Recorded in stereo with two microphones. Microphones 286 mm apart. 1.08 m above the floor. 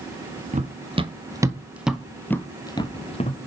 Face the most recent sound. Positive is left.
turn(degrees=25)  # may be behind; listen again after turning